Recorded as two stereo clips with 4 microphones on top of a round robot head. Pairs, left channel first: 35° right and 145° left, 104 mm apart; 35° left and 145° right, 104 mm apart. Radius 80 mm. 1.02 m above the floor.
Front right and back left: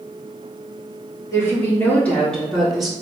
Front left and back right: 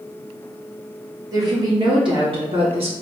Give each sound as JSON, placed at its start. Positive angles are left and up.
{"t": 1.3, "sound": "a woman speaking", "azimuth_deg": -95, "distance_m": 2.0}